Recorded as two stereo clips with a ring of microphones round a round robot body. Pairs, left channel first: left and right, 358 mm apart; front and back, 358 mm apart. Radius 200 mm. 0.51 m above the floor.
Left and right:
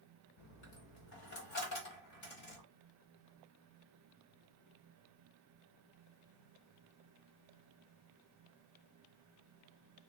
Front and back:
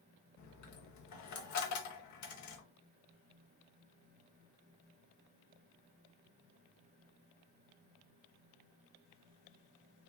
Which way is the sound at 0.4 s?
40° left.